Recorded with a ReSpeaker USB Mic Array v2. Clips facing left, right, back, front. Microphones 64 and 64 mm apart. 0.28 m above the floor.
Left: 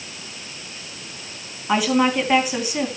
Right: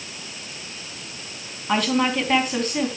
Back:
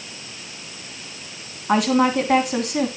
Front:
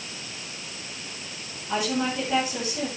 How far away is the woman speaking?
About 3 m.